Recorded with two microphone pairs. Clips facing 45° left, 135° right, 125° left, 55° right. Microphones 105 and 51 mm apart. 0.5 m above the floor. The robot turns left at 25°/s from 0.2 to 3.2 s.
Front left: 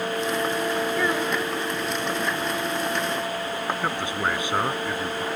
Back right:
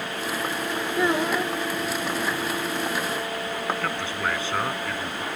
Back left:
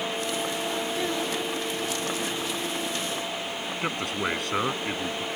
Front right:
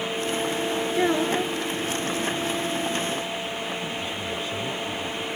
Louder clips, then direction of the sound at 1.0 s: Back right 1 dB, front right 6 dB; 70° right.